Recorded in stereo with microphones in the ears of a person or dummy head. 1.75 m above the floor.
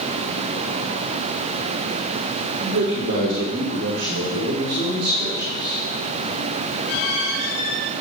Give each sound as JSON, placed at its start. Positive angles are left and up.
{"t": 2.6, "sound": "a man speaking", "side_deg": -65, "distance_m": 5.0}